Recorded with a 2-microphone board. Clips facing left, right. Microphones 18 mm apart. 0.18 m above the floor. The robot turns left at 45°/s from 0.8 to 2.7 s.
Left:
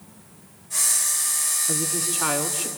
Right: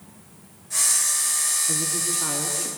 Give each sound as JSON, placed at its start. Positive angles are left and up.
{"t": 1.7, "sound": "a woman speaking", "azimuth_deg": 140, "distance_m": 2.0}